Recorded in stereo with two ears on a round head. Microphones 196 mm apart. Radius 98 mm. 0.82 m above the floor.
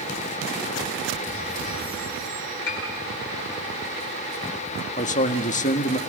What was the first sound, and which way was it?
A piano, 55° left (ahead or behind).